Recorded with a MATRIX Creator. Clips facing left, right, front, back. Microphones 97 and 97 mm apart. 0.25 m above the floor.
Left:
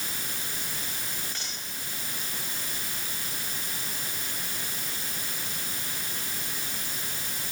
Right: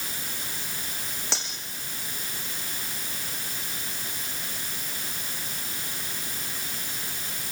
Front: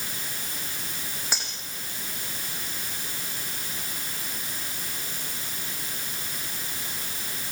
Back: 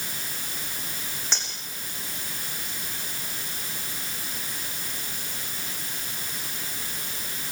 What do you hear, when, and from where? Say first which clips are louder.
1.3 s cutlery clinking: right 6 dB, front 1 dB; 80° right, 8 m